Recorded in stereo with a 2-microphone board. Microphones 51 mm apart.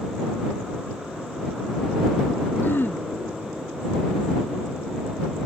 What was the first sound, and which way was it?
Throat clearing, 45° left (ahead or behind).